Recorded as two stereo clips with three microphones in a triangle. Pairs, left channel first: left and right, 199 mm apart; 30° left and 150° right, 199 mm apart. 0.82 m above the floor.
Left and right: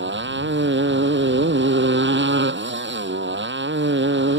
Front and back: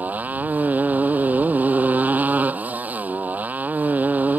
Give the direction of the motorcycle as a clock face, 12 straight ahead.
2 o'clock.